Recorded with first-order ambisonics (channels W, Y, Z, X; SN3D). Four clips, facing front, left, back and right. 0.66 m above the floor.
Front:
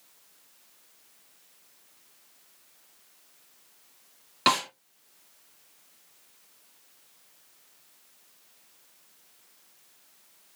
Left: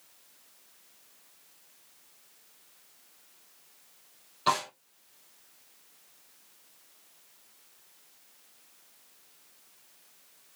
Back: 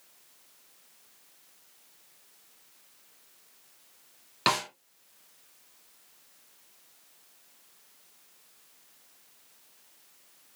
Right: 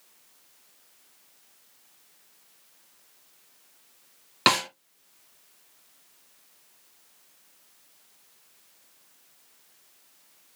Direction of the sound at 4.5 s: 90° right.